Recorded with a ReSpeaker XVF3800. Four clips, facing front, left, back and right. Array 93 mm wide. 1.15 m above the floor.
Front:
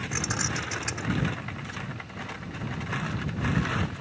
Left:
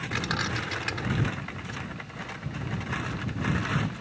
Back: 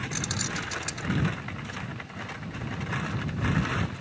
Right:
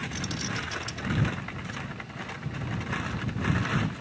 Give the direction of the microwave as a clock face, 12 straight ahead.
I don't hear a microwave.